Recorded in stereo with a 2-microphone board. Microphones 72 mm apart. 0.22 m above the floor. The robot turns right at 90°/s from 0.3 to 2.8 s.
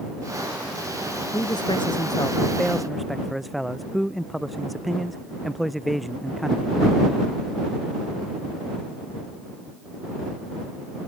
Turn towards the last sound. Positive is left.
turn(degrees=180)